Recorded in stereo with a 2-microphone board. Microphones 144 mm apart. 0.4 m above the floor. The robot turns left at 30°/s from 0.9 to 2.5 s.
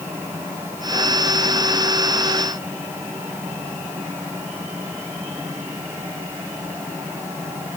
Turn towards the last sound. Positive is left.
No sound to turn to.